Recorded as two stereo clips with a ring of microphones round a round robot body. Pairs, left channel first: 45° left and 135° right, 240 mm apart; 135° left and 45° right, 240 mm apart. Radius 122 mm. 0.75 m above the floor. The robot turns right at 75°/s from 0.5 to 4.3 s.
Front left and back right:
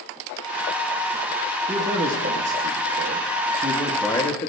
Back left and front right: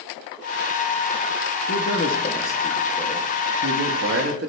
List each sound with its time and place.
1.7 s a man speaking: 150° left, 1.6 m; by 4.5 s 15° right, 1.6 m